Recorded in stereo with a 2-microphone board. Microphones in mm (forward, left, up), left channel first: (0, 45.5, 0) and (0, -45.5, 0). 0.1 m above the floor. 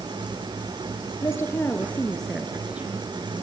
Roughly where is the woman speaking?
Left.